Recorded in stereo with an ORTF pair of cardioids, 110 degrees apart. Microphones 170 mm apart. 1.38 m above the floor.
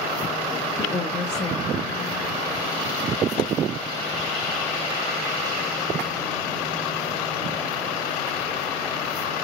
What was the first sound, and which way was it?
A woman speaking, 40° left.